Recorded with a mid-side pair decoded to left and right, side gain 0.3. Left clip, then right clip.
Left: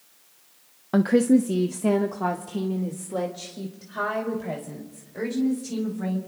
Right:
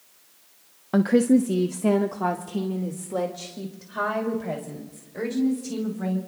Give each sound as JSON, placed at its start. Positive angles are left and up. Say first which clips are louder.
{"t": 0.9, "sound": "a woman speaking", "louder": "even", "azimuth_deg": 10, "distance_m": 0.7}